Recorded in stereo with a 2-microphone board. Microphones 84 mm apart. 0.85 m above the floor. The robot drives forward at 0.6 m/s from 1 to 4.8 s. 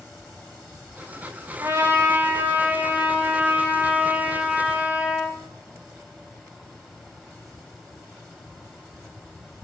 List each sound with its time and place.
1.6 s a trumpet: 35° right (ahead or behind), 1.1 m; by 5.4 s 15° right (ahead or behind), 3 m